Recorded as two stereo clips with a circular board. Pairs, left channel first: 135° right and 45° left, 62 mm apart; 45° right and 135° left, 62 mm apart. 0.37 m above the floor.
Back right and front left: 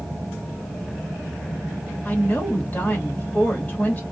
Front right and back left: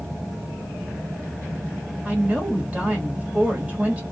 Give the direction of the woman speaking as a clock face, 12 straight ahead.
6 o'clock.